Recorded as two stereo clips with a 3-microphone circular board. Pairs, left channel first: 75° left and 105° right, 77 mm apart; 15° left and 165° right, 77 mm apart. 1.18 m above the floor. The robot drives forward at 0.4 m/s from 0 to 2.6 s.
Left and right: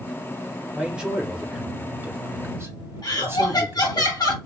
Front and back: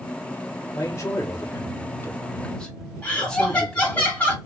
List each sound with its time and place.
0.7 s a man speaking: 25° right, 1.3 m; by 4.0 s 60° right, 0.8 m
3.0 s laughter: 85° left, 1.2 m